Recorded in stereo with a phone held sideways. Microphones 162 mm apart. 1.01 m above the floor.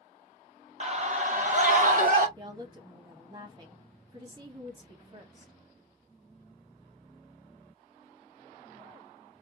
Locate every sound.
0.8 s a scream: 45° right (ahead or behind), 1.2 m; by 2.3 s 55° right (ahead or behind), 2 m
2.4 s a woman speaking: 30° right (ahead or behind), 1.6 m